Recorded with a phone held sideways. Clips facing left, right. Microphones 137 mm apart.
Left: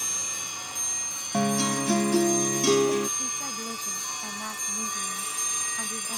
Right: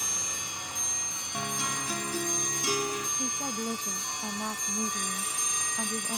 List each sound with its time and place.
1.3 s a guitar: 75° left (ahead or behind)
3.2 s a woman speaking: 20° right (ahead or behind)